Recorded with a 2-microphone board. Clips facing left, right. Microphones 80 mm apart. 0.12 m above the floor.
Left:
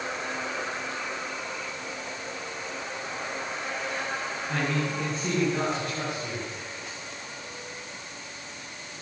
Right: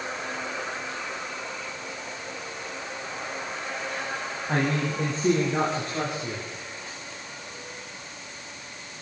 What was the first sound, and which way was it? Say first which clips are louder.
A man speaking: right 3 dB; 40° right (ahead or behind).